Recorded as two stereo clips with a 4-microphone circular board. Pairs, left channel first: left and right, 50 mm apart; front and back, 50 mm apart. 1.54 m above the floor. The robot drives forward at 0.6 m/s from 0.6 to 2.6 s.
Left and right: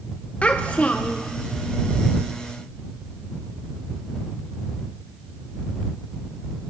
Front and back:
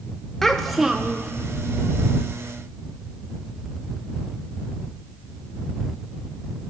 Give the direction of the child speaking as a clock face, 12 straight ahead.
10 o'clock.